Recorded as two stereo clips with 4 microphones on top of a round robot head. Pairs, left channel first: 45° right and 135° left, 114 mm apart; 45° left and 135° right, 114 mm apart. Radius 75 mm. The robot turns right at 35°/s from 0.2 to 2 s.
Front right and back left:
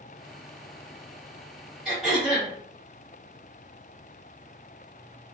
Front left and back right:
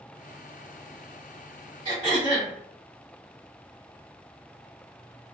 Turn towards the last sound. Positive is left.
turn(degrees=-145)